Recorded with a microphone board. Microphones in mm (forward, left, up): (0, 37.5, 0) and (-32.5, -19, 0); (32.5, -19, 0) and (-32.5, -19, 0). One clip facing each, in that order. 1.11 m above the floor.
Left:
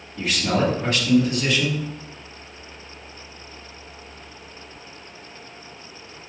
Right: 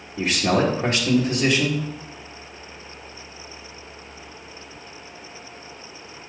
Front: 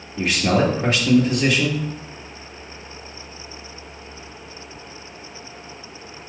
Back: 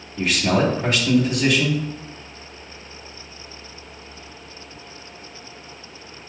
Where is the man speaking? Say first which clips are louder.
Right 2 dB, front 1 dB; 60° right, 1.7 m.